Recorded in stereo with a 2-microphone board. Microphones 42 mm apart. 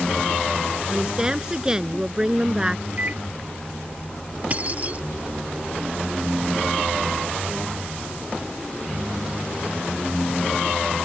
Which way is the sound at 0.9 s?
15° right (ahead or behind).